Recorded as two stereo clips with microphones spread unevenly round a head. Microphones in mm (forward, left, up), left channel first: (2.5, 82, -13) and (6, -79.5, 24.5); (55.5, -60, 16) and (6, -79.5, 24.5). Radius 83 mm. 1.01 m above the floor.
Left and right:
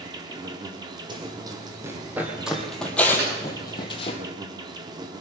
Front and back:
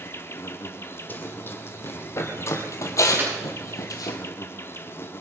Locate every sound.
0.0 s an insect: 25° right, 1.3 m
1.1 s running footsteps: 35° right, 2.5 m; by 4.2 s 30° left, 1.9 m
3.2 s a snare drum: 110° right, 8.5 m